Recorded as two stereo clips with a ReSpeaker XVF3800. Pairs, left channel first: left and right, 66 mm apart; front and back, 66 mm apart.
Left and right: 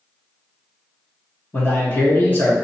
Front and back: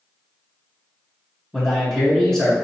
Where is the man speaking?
75° left, 1.3 m.